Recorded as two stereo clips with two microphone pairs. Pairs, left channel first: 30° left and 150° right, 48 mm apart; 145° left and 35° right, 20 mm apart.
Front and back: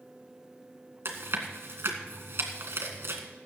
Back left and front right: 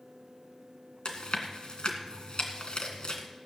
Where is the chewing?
175° left, 1.9 m.